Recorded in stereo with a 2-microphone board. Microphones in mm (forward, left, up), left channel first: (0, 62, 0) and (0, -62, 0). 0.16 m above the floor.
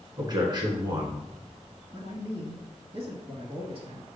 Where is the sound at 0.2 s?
35° right (ahead or behind), 1.4 m.